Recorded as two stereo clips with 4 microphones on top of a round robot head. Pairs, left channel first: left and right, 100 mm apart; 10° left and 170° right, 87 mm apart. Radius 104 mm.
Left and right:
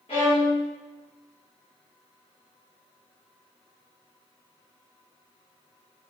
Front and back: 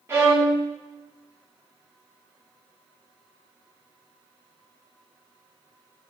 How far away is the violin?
About 0.8 m.